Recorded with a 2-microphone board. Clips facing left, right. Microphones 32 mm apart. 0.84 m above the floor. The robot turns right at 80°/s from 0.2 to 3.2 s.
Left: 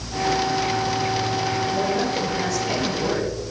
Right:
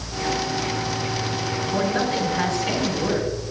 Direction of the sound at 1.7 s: 115° right.